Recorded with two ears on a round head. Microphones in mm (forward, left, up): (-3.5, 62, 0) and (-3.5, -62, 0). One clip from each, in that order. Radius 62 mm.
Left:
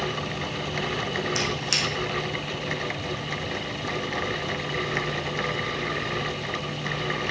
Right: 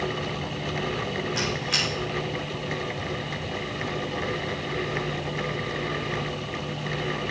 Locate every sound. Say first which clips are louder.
1.4 s a squeak: right 1 dB; 75° left (ahead or behind), 2.5 m